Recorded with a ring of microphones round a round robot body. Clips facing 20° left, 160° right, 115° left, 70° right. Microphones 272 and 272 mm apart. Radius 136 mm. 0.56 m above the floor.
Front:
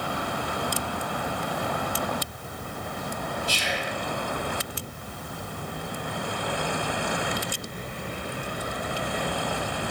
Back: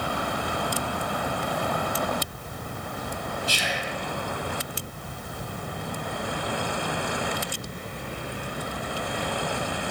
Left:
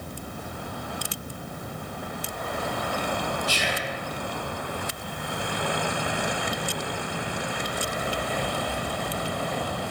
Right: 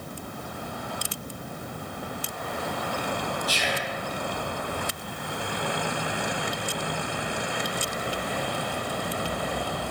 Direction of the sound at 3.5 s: 175° left.